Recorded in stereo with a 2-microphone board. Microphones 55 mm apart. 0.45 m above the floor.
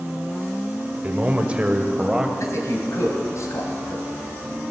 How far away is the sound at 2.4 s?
About 2.5 m.